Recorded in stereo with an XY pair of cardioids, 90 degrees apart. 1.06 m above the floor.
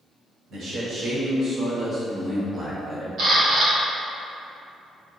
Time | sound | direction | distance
0.5 | a man speaking | 65° right | 1.8 m
3.2 | a camera shutter | 70° right | 1.2 m